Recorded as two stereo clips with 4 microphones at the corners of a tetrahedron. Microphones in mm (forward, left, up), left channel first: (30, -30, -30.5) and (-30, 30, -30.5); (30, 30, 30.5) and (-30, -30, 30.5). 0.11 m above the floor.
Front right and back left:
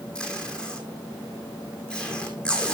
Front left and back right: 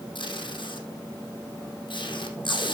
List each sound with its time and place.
0.1 s tape being pulled: 35° left, 2.5 m